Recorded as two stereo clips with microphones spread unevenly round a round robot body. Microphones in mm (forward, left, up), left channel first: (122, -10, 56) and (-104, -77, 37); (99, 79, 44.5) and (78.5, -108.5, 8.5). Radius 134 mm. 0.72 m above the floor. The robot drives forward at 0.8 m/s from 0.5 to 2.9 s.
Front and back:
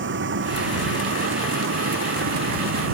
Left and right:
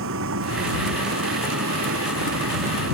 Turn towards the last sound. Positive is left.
turn(degrees=-130)